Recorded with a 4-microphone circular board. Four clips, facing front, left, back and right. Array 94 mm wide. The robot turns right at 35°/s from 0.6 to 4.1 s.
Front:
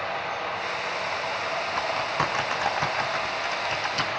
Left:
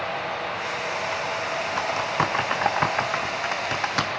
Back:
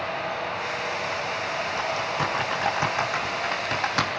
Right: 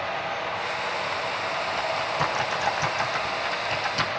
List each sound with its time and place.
1.8 s typing on a keyboard: 55° left, 5 m; by 4.1 s 140° left, 5 m